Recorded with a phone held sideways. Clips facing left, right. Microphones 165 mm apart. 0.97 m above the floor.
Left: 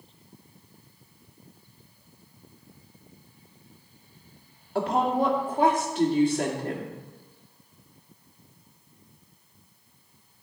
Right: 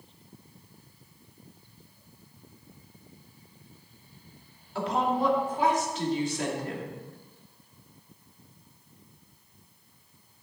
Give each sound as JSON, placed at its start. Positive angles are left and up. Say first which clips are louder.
{"t": 4.8, "sound": "a woman speaking", "louder": "left 3 dB", "side_deg": 50, "distance_m": 2.0}